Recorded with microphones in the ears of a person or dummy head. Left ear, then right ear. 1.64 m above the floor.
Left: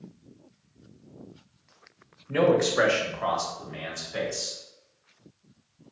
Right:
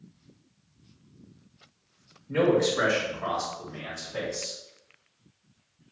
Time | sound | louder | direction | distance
2.3 | a man speaking | left 1 dB | 15° left (ahead or behind) | 1.0 m